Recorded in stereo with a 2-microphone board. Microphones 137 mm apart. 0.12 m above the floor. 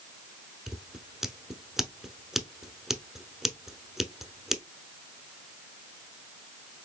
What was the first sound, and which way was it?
Scissors, 5° right (ahead or behind).